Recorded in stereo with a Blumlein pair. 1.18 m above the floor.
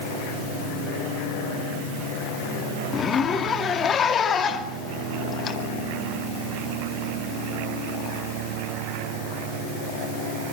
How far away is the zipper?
About 2 m.